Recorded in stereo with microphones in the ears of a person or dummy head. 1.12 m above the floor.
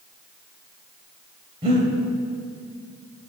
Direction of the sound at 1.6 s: 30° right (ahead or behind).